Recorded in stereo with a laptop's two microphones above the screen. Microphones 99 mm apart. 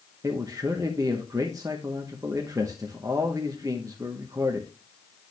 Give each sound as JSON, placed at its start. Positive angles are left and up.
{"t": 0.2, "sound": "a man speaking", "side_deg": -35, "distance_m": 0.9}